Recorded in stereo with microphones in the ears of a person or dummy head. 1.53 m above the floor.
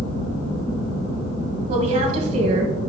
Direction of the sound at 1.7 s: 35° right (ahead or behind).